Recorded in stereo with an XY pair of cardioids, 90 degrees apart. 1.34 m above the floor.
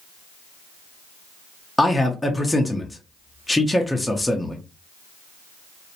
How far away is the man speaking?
About 0.6 m.